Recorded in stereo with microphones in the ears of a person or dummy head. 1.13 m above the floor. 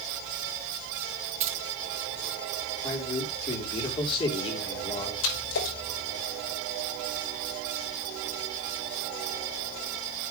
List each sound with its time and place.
1.4 s keys jangling: 35° right (ahead or behind), 0.7 m
2.8 s a man speaking: 30° left (ahead or behind), 3 m
5.2 s a splash: 80° left, 5.5 m